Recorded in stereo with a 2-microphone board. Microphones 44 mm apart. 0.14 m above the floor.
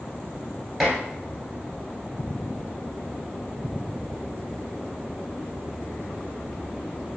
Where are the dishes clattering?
Centre (ahead or behind), 1.6 m.